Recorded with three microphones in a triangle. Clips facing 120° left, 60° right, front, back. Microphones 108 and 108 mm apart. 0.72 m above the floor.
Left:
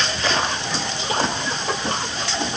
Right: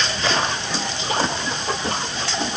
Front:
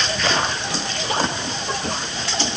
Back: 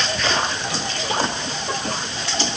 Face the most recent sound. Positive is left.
No sound to turn to.